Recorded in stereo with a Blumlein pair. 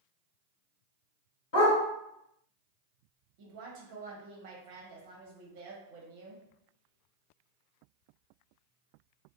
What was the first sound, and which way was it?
A dog barking, 50° left.